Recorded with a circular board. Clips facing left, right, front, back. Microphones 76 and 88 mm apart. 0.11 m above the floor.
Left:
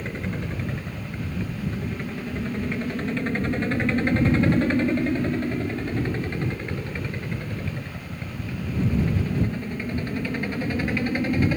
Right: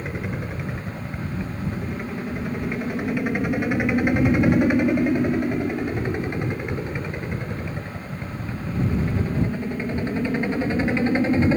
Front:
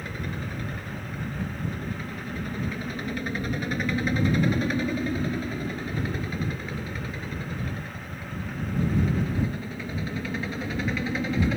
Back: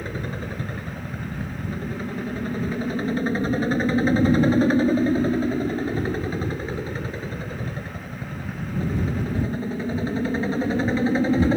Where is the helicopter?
165° right; by 11.6 s 145° right.